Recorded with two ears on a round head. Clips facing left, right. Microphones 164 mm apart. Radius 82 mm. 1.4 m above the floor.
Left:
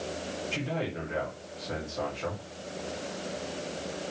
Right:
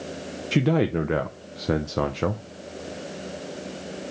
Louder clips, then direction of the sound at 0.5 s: Right 14 dB; 75° right (ahead or behind).